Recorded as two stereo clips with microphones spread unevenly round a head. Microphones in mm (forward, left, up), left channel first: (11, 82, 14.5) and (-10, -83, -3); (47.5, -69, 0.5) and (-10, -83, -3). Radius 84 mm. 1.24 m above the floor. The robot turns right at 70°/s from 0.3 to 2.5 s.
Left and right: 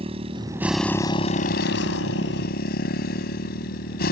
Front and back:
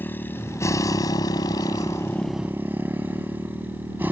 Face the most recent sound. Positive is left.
turn(degrees=115)